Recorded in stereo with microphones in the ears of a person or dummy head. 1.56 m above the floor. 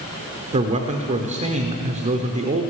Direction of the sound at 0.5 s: 30° right (ahead or behind).